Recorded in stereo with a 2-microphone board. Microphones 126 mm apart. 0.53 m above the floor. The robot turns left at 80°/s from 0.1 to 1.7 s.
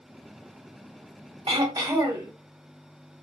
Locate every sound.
1.5 s throat clearing: 50° right (ahead or behind), 0.9 m; by 2.3 s 30° right (ahead or behind), 0.9 m